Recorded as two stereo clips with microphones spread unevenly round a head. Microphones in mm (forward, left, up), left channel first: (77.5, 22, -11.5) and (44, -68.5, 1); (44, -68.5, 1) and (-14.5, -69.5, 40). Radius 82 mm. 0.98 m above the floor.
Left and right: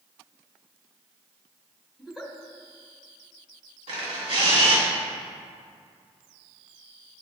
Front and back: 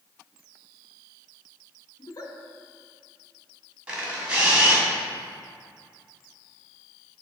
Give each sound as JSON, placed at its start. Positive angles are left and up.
{"t": 2.0, "sound": "a giggle", "azimuth_deg": -20, "distance_m": 1.4}
{"t": 3.9, "sound": "a camera shutter", "azimuth_deg": -125, "distance_m": 2.0}